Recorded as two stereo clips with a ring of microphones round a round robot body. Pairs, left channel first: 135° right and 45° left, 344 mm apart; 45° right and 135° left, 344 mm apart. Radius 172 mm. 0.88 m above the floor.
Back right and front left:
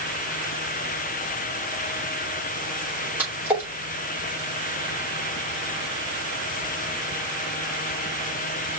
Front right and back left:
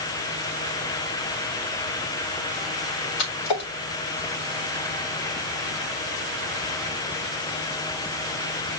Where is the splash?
40° right, 3 m.